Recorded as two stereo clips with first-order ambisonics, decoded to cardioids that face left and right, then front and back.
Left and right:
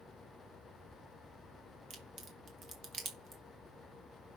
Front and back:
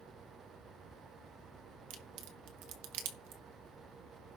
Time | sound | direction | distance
1.9 | a crack | 160° right | 2 m